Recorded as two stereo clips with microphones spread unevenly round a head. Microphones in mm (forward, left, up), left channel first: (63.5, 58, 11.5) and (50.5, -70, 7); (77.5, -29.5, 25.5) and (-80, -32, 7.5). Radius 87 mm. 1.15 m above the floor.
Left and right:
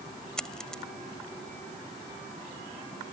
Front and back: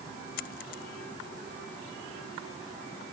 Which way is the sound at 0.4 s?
Straight ahead.